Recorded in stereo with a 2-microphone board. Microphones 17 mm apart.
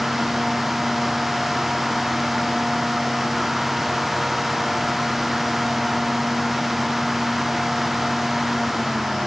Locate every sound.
Only background noise.